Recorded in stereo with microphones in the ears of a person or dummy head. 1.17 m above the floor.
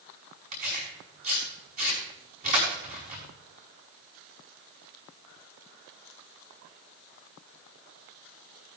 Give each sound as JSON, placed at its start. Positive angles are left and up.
{"t": 0.5, "sound": "tearing paper", "side_deg": -40, "distance_m": 5.0}